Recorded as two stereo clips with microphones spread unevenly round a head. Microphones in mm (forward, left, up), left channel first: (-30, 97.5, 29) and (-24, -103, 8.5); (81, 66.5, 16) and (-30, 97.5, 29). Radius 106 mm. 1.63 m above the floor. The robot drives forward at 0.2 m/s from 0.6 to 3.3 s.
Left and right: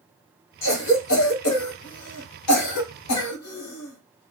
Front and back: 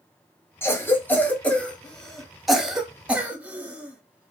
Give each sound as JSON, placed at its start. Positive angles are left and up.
{"t": 0.6, "sound": "a cough", "azimuth_deg": 55, "distance_m": 1.1}